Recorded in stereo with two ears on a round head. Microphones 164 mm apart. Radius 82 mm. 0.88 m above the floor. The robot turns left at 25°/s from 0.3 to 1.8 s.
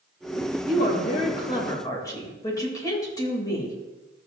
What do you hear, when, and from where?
0.7 s a woman speaking: 50° left (ahead or behind), 3 m; by 3.8 s 20° left (ahead or behind), 3 m